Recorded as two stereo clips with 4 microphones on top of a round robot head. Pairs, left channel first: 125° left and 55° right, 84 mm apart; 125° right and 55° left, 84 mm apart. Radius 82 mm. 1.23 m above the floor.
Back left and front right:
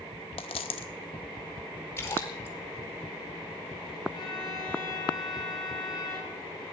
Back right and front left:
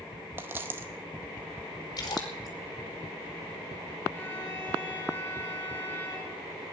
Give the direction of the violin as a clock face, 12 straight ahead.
6 o'clock.